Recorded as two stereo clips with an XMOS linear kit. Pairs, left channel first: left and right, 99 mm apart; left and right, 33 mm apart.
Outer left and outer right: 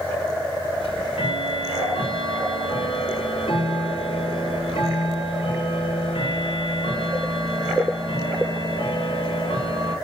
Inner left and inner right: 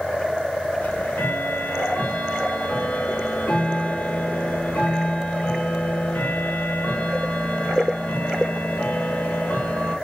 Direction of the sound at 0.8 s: 70° left (ahead or behind).